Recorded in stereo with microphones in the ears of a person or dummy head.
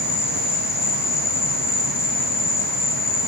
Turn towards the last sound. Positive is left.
turn(degrees=15)  # may be behind; listen again after turning